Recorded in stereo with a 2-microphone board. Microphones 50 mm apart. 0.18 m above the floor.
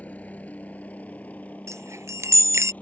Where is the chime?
70° right (ahead or behind).